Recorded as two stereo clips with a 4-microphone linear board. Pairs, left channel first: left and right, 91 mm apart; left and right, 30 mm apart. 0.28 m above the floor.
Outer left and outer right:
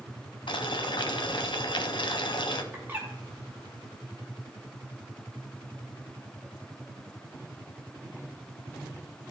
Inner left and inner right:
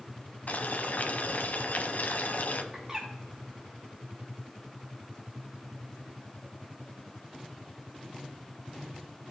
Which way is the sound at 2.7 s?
25° right (ahead or behind).